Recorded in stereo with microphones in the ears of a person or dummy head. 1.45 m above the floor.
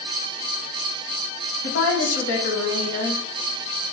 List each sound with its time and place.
1.6 s a woman speaking: 75° left (ahead or behind), 0.8 m